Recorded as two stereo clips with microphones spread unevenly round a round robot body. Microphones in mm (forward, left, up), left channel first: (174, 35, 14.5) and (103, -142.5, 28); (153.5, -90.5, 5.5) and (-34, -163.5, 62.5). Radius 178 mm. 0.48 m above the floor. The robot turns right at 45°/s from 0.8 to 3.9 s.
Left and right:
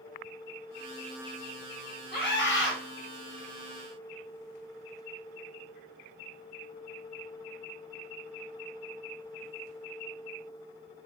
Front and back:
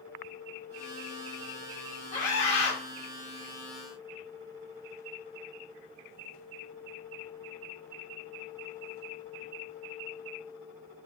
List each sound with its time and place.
2.1 s a scream: 55° left, 3 m; by 2.8 s 85° left, 3 m